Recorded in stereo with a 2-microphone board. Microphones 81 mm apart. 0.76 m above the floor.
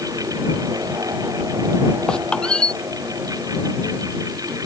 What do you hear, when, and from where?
2.1 s a squeak: 10° left (ahead or behind)